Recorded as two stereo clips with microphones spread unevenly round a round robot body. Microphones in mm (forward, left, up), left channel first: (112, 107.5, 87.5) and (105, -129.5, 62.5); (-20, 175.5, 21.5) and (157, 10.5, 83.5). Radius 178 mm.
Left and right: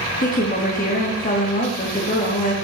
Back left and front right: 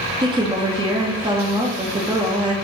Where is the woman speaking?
30° left, 1.4 m.